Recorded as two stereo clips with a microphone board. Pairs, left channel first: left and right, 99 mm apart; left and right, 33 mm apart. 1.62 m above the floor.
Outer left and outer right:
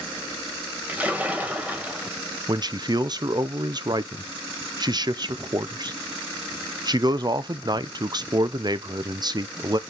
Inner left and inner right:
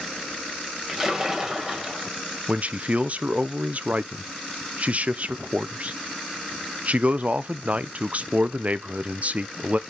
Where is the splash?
15° right (ahead or behind), 2.0 m.